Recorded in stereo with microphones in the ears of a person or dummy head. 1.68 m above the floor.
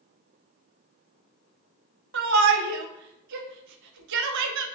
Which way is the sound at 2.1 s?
65° right (ahead or behind).